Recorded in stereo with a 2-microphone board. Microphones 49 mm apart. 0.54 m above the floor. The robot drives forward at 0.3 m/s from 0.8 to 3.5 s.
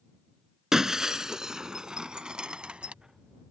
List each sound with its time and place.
0.7 s breaking glass: 10° right (ahead or behind); by 2.9 s 25° right (ahead or behind)